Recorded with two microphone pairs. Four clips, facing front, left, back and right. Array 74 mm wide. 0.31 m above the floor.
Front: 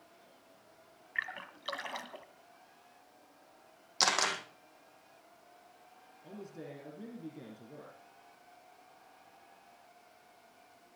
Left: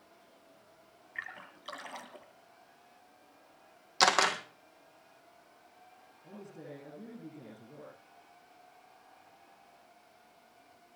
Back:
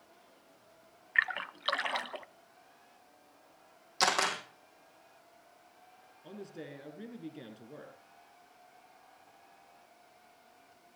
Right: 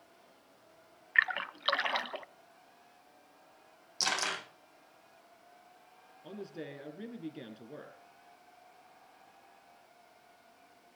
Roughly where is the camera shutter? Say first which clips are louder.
Left 8 dB, back 2 dB; left.